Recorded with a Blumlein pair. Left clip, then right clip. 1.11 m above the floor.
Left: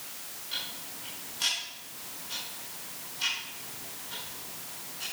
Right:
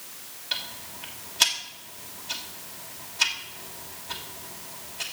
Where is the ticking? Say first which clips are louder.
Right 5 dB; 55° right, 2.5 m.